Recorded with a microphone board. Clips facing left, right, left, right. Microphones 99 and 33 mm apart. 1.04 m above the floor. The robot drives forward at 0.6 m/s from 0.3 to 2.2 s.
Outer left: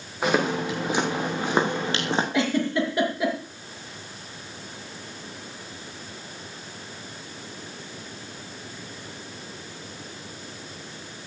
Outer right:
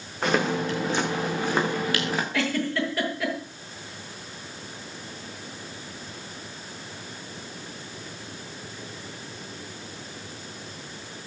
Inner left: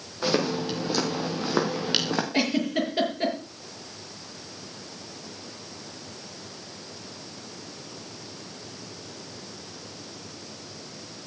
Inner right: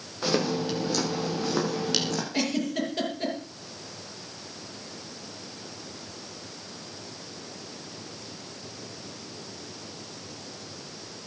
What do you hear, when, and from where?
0.2 s footsteps: 10° left (ahead or behind), 6.5 m; by 2.2 s 35° left (ahead or behind), 3.5 m
2.3 s a giggle: 20° left (ahead or behind), 6 m